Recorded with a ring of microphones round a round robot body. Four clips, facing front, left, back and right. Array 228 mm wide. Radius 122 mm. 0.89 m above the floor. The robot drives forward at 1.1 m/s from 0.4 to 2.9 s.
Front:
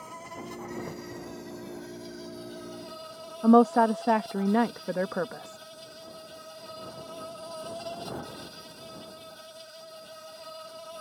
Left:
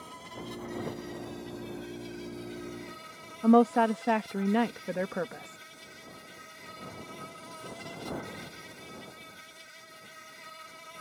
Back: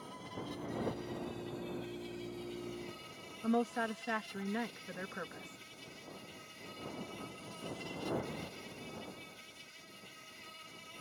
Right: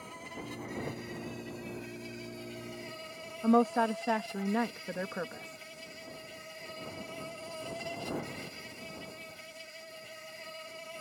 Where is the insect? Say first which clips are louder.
Left 1 dB, front 5 dB; 20° right; by 11.0 s 30° right.